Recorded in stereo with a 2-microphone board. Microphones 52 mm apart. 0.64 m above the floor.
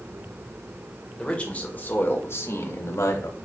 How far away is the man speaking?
About 1.9 m.